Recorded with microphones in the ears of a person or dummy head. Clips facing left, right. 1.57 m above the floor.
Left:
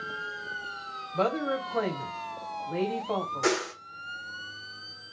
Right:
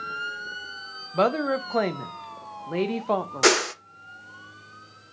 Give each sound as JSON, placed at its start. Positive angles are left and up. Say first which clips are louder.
{"t": 1.1, "sound": "a woman speaking", "louder": "right 5 dB", "side_deg": -65, "distance_m": 0.7}
{"t": 3.4, "sound": "a whoosh", "louder": "right 6 dB", "side_deg": -75, "distance_m": 0.5}